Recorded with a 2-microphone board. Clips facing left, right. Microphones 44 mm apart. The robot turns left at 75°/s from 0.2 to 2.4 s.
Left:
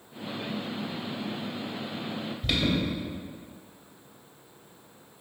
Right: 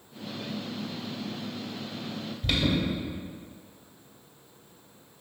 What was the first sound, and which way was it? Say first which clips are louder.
An alarm: even; centre (ahead or behind).